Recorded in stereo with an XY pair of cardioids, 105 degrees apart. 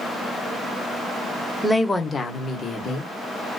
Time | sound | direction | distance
1.6 | a woman speaking | straight ahead | 0.7 m